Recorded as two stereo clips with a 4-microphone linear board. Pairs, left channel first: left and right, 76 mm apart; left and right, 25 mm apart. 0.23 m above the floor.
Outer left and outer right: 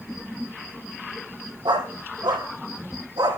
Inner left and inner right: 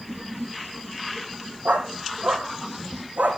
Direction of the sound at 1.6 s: 85° right.